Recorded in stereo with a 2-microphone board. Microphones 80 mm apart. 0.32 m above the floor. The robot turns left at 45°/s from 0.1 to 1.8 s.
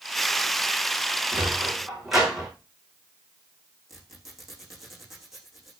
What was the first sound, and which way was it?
A sliding door, 25° right (ahead or behind).